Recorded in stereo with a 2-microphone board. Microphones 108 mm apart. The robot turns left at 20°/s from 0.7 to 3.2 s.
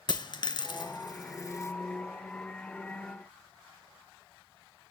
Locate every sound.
0.1 s a dropped coin: 50° left (ahead or behind), 0.6 m; by 1.7 s 30° left (ahead or behind), 0.6 m